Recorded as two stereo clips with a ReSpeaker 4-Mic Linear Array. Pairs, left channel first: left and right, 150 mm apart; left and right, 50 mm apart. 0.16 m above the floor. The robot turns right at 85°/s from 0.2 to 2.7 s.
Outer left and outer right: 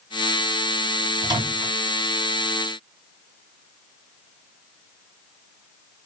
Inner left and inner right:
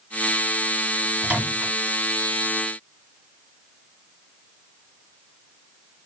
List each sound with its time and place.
1.2 s a microwave: 25° right (ahead or behind), 1.6 m; by 1.7 s 40° right (ahead or behind), 1.6 m